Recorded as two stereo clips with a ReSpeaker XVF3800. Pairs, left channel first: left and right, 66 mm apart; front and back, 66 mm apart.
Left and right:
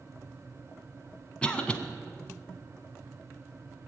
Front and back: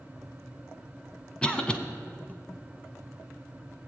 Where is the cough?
45° left, 1.2 m.